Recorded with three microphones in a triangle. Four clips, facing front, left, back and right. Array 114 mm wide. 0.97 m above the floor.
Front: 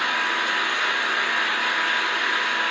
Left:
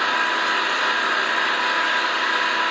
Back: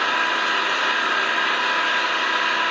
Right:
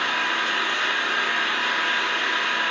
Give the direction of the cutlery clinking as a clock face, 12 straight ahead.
No cutlery clinking in this recording.